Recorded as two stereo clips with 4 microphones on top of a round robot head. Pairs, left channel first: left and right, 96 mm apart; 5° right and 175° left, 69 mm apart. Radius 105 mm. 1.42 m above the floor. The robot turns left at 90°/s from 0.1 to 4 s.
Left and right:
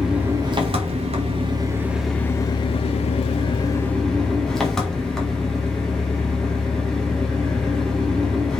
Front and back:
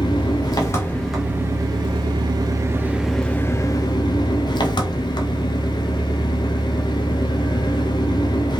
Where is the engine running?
5° right, 1.7 m; by 8.6 s 5° left, 1.7 m.